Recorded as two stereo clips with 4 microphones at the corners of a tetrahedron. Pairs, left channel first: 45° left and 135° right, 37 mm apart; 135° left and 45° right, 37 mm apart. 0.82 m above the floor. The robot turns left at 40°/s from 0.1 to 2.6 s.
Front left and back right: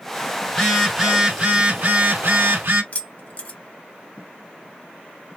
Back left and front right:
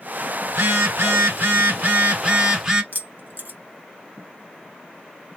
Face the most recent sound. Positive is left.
turn(degrees=-5)